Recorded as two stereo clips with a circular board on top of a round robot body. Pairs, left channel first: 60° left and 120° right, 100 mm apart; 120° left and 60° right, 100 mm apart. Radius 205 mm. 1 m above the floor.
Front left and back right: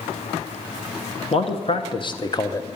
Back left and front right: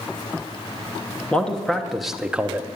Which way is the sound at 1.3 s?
40° left.